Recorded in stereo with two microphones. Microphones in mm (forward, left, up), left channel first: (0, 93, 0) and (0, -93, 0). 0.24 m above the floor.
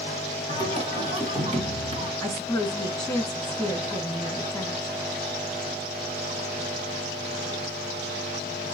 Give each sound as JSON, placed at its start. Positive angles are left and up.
{"t": 0.5, "sound": "singing", "side_deg": -35, "distance_m": 1.3}
{"t": 2.2, "sound": "a woman speaking", "side_deg": 5, "distance_m": 2.5}